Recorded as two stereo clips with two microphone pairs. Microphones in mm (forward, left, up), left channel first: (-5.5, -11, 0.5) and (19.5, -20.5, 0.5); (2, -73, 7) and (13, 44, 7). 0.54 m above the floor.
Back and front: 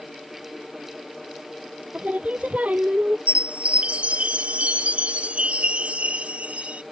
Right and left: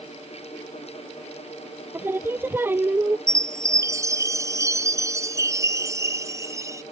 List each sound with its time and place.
1.9 s singing: 10° left
3.3 s a chime: 20° left